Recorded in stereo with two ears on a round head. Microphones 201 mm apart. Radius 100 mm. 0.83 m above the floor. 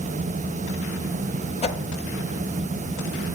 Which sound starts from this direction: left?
A whoosh, at 1.6 s.